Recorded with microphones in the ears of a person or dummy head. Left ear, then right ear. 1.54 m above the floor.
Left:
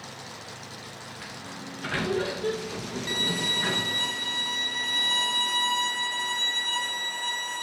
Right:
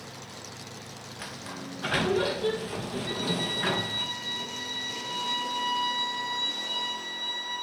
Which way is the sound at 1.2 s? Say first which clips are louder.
Right 3 dB; 10° right (ahead or behind).